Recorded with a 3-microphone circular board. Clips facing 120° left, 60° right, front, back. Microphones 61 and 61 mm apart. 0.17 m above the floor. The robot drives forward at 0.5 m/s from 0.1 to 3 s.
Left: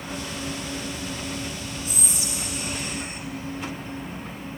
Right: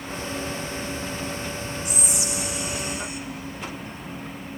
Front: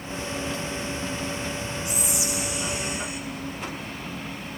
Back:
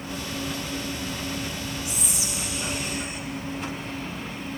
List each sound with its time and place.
1.9 s whispering: 130° left, 1.9 m; by 3.2 s 145° left, 2 m